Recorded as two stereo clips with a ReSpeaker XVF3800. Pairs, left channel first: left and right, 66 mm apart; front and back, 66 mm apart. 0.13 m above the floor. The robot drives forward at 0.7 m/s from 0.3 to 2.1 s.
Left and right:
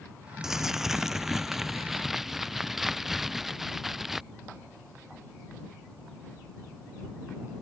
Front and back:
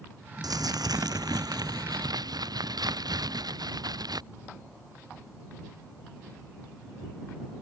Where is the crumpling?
175° right.